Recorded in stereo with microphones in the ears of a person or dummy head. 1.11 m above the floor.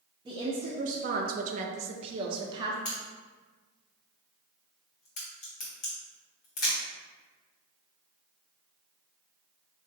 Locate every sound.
0.2 s a woman speaking: 25° right (ahead or behind), 0.7 m
2.9 s a crack: 40° left (ahead or behind), 1.4 m